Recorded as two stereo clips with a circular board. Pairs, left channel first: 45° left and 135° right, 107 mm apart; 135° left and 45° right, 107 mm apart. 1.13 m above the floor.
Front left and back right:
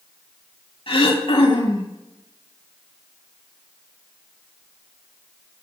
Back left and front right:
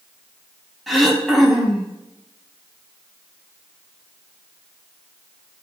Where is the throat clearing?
45° left, 1.1 m.